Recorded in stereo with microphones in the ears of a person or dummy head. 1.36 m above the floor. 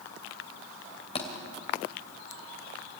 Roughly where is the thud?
Left.